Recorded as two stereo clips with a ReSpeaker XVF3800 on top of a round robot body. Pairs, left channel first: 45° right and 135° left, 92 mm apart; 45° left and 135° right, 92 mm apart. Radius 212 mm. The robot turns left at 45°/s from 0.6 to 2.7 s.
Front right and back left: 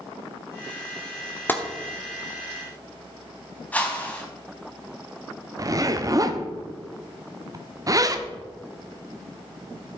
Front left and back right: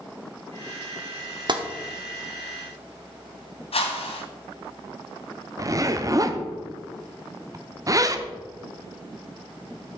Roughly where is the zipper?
Behind.